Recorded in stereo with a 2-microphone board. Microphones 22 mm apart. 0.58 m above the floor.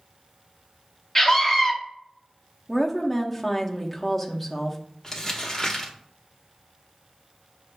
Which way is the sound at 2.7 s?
Centre (ahead or behind).